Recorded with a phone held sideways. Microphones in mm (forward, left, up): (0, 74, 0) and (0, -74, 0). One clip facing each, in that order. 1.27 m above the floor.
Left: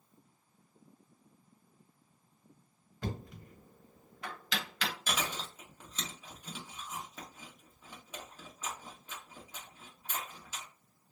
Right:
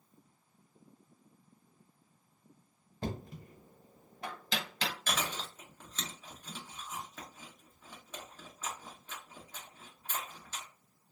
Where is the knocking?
30° right (ahead or behind), 1.1 m.